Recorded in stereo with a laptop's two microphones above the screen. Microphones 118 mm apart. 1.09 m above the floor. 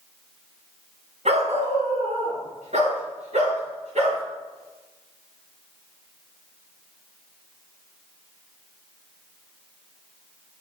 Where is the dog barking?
70° right (ahead or behind), 2.5 m; by 4.2 s 85° right, 6.5 m.